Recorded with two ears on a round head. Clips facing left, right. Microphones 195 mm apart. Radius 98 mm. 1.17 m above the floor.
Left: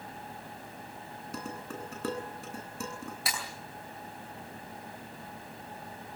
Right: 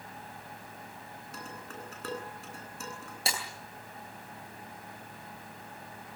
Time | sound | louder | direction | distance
1.3 | dishes clattering | left 6 dB | 85° left | 10 m
3.3 | breaking glass | right 4 dB | 25° right (ahead or behind) | 10 m